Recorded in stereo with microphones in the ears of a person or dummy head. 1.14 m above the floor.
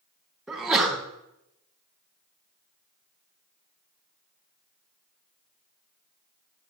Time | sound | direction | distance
0.5 | a sneeze | centre (ahead or behind) | 0.9 m